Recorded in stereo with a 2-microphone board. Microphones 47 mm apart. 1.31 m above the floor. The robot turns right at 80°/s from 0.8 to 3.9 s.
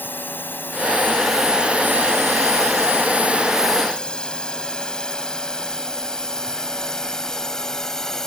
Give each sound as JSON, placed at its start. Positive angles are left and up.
{"t": 0.0, "sound": "a drone", "side_deg": 45}